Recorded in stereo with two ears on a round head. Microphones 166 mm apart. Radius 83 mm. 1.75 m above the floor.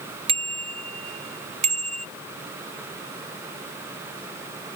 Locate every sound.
0.3 s a bicycle bell: 30° right (ahead or behind); by 2.1 s 40° right (ahead or behind)